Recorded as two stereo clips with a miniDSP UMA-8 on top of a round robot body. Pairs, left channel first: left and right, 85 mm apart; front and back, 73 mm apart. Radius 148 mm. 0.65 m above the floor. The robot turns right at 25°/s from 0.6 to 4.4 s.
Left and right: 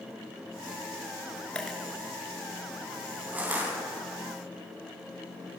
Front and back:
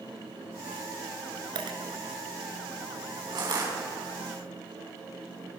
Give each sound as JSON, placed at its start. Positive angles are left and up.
{"t": 1.6, "sound": "a dropped coin", "azimuth_deg": 170, "distance_m": 1.9}
{"t": 3.3, "sound": "crushing", "azimuth_deg": -160, "distance_m": 7.0}